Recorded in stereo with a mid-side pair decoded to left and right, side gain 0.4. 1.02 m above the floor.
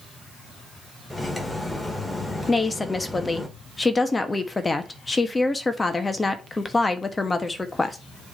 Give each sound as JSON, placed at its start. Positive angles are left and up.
{"t": 1.1, "sound": "cutlery clinking", "azimuth_deg": 15, "distance_m": 1.8}
{"t": 2.5, "sound": "a woman speaking", "azimuth_deg": 25, "distance_m": 1.3}